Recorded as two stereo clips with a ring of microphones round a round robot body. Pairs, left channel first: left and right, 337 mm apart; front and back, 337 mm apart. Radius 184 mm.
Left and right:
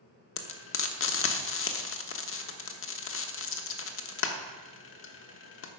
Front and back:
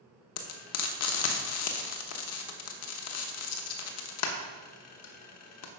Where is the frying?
40° left, 1.1 m.